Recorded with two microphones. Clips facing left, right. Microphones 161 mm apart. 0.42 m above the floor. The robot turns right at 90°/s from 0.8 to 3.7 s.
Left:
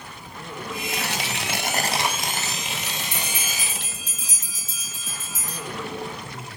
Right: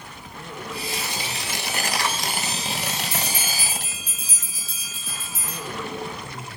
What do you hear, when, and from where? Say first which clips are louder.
0.9 s tearing paper: left 2 dB; 60° left, 1.3 m; by 3.8 s 50° right, 1.3 m
2.8 s a bell: right 3 dB; 5° left (ahead or behind), 4 m; by 5.6 s 65° right (ahead or behind), 4 m